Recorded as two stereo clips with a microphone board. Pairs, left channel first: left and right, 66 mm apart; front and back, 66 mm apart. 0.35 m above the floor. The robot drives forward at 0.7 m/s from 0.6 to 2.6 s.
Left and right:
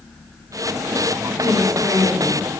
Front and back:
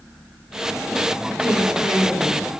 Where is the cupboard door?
I don't hear a cupboard door.